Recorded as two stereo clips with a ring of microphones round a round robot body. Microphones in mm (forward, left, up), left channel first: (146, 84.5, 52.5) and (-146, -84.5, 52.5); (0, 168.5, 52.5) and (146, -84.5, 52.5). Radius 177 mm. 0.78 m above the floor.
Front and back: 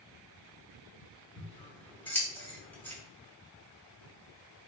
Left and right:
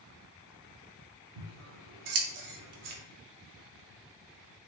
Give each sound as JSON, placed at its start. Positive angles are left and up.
{"t": 1.4, "sound": "scissors", "azimuth_deg": -55, "distance_m": 0.6}